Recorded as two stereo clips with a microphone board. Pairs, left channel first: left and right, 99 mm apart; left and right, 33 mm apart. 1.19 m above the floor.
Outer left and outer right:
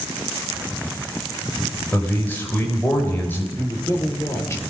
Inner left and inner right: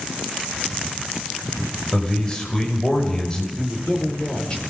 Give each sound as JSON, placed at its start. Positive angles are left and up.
{"t": 1.9, "sound": "a man speaking", "side_deg": 20, "distance_m": 4.5}
{"t": 3.6, "sound": "a man speaking", "side_deg": 25, "distance_m": 4.5}